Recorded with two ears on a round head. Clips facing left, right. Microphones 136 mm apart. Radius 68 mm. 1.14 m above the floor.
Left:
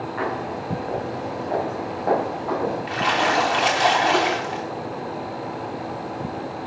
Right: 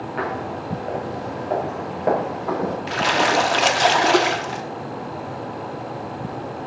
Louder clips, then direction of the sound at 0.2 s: Right 1 dB; 60° right (ahead or behind).